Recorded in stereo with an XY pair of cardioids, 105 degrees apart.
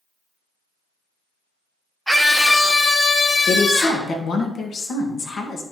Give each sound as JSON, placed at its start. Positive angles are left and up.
{"t": 2.1, "sound": "a scream", "azimuth_deg": -5, "distance_m": 1.0}
{"t": 3.5, "sound": "a woman speaking", "azimuth_deg": 55, "distance_m": 2.0}